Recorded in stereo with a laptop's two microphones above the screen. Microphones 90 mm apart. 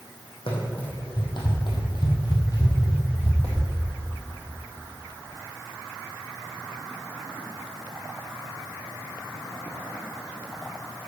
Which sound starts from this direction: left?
Running footsteps, at 0.5 s.